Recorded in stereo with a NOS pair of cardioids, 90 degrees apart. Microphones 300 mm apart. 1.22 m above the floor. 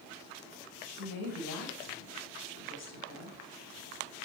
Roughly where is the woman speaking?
Ahead left.